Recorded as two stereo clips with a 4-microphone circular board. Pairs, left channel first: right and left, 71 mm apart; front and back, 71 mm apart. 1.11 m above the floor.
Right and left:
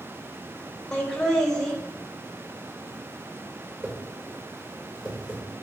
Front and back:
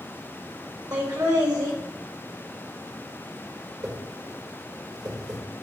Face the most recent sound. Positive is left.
turn(degrees=155)